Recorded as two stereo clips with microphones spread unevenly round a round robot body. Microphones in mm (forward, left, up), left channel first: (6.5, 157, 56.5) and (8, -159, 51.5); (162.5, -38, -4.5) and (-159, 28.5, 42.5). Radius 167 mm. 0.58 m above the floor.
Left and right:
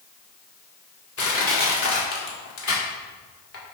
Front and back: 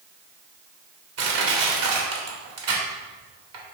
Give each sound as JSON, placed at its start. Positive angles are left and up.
{"t": 1.2, "sound": "crushing", "azimuth_deg": 125, "distance_m": 1.8}